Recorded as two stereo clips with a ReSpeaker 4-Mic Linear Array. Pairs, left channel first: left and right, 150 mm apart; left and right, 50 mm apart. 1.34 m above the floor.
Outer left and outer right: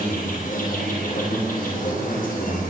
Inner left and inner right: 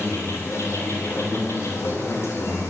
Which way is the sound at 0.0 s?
65° left (ahead or behind).